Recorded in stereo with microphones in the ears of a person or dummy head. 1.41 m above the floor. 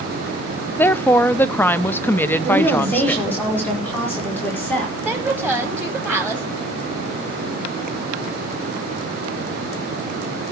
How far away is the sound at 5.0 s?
About 2 m.